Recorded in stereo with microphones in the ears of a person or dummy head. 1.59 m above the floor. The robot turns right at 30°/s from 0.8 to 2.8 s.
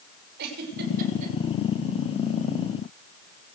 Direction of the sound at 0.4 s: 55° right (ahead or behind).